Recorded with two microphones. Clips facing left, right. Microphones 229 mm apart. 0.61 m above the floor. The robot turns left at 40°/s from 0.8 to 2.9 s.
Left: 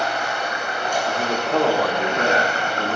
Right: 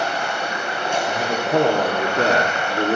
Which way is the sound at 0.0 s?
150° right.